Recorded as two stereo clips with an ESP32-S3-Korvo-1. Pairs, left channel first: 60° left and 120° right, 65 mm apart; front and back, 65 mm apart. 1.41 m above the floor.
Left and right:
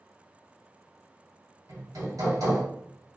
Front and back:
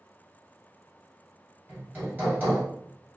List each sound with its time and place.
1.7 s hammering: 125° right, 2 m